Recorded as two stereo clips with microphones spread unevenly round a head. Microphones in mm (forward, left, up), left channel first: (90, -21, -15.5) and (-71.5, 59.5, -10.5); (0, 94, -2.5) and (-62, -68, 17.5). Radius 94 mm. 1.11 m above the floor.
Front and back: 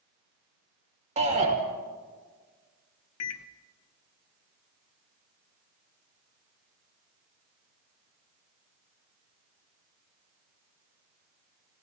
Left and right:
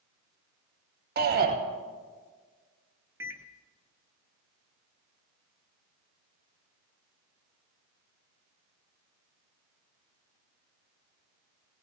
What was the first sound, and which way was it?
A shout, 145° right.